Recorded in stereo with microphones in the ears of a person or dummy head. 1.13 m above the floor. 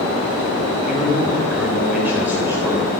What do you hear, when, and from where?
0.9 s a man speaking: centre (ahead or behind), 5 m; by 2.9 s 15° right (ahead or behind), 4.5 m